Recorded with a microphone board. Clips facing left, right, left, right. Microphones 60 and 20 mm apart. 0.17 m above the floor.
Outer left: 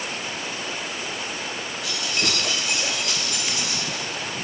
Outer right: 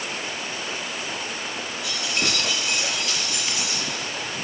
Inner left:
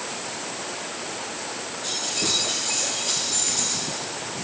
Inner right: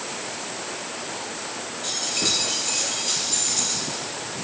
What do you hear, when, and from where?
1.8 s keys jangling: 25° right (ahead or behind), 2.5 m; by 4.0 s 35° right (ahead or behind), 3.5 m